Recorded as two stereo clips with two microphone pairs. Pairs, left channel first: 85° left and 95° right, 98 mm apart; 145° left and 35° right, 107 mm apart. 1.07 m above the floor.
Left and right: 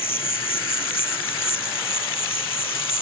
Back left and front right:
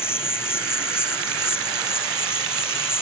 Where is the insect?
80° left.